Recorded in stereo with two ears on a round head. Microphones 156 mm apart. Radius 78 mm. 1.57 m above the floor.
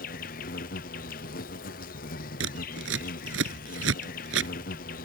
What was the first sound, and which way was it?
An insect, 50° left (ahead or behind).